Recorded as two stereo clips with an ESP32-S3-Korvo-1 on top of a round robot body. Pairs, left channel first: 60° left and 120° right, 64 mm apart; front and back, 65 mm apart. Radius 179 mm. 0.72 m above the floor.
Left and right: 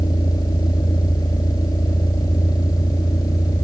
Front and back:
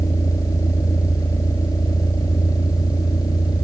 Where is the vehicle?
35° left; by 3.6 s 25° left.